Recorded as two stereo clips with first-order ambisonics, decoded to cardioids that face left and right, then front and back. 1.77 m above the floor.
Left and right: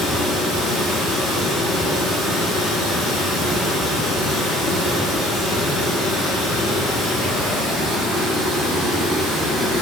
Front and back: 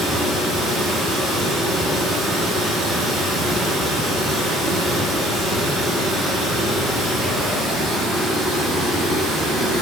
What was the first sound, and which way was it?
Running water, 120° right.